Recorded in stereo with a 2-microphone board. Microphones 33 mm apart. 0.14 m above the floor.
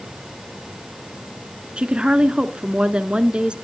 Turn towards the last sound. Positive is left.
turn(degrees=-35)  # may be behind; listen again after turning